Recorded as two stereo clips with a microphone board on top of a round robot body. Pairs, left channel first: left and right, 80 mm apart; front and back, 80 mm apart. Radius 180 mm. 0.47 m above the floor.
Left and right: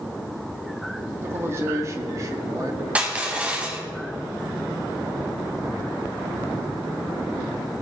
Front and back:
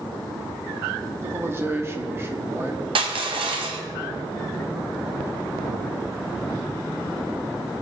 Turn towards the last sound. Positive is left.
turn(degrees=-165)